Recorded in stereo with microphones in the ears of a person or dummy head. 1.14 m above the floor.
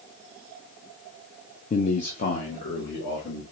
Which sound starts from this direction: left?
A man speaking, at 1.7 s.